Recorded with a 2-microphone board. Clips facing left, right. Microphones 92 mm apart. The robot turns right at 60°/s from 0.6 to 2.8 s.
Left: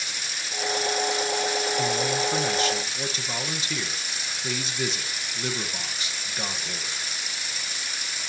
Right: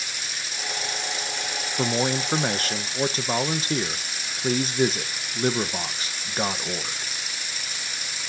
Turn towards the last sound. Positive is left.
turn(degrees=-50)